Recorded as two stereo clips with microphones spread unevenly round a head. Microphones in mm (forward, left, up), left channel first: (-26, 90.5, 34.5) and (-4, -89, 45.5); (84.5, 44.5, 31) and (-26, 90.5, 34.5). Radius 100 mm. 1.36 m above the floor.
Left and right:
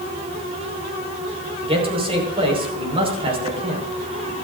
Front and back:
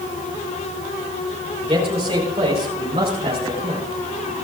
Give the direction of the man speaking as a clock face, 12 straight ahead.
5 o'clock.